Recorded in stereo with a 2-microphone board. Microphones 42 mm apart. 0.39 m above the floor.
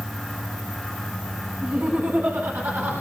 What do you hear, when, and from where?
1.6 s laughter: 65° right (ahead or behind), 3.5 m; by 2.9 s 75° right (ahead or behind), 4.5 m